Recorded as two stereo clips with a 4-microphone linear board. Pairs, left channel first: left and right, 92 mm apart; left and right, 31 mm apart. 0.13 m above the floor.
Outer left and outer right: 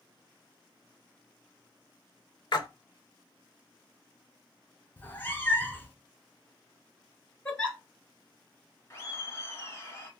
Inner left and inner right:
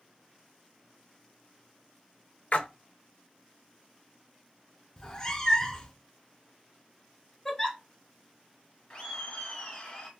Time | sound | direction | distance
2.5 | a splash | 55° left (ahead or behind) | 0.5 m
5.0 | a cat meowing | 25° left (ahead or behind) | 0.5 m
7.5 | a giggle | 15° left (ahead or behind) | 0.9 m
8.9 | laughter | 30° left (ahead or behind) | 1.4 m